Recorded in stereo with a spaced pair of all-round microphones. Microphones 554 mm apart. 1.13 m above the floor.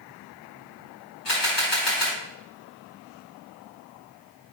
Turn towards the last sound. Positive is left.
turn(degrees=50)  # may be behind; listen again after turning